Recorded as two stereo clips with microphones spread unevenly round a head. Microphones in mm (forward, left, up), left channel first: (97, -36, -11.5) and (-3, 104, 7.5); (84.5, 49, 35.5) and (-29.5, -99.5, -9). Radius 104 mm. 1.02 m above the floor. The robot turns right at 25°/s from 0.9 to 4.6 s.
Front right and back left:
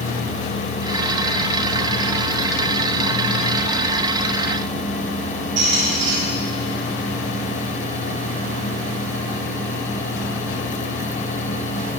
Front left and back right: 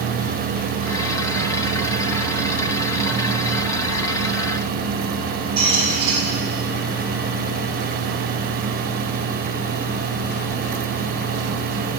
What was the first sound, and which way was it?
A squeak, 165° left.